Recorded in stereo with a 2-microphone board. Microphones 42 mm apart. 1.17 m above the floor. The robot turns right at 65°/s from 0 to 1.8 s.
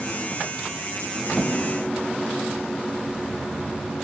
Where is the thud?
10° right (ahead or behind), 3 m; by 1.5 s 5° left (ahead or behind), 3 m.